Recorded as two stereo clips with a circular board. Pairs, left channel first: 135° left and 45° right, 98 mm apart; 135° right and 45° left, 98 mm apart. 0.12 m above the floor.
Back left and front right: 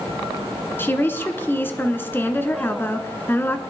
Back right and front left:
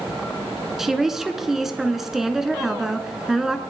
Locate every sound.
0.8 s a woman speaking: 125° left, 1.1 m